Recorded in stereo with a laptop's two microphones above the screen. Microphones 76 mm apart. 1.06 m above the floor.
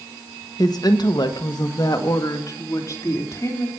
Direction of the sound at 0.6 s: 55° left (ahead or behind).